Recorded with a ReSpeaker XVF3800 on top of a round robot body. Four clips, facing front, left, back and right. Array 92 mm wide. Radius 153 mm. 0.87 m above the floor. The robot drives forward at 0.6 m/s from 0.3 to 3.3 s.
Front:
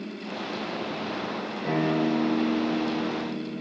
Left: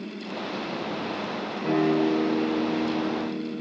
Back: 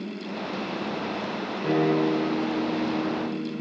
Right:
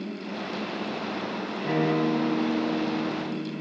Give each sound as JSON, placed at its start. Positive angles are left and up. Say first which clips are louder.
{"t": 1.6, "sound": "a guitar", "louder": "left 2 dB, back 3 dB", "azimuth_deg": 165, "distance_m": 3.0}